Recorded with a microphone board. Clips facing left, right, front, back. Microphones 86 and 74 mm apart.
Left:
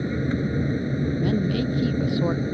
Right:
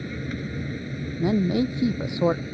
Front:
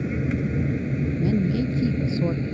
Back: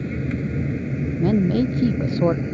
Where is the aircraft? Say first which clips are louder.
Left 7 dB, front 1 dB; 75° left; by 2.5 s 115° left.